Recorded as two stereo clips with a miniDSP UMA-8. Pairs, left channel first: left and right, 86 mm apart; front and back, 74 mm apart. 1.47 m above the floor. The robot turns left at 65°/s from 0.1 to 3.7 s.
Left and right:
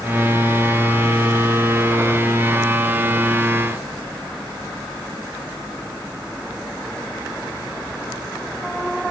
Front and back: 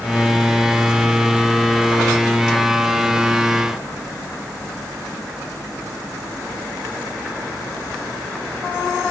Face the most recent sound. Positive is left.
No sound to turn to.